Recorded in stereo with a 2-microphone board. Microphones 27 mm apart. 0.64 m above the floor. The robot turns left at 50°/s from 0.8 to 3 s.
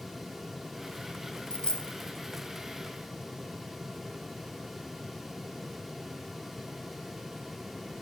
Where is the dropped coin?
35° left (ahead or behind), 0.5 m; by 2.0 s 40° left (ahead or behind), 0.5 m.